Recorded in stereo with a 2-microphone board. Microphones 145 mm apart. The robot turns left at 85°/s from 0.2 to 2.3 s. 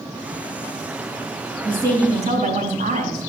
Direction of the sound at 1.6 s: 5° right.